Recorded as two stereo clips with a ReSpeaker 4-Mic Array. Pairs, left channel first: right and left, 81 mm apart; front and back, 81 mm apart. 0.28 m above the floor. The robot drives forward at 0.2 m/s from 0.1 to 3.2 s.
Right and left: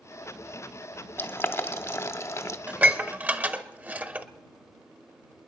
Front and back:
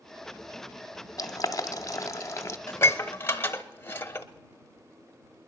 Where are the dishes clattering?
30° left, 0.9 m; by 4.3 s 40° left, 0.8 m.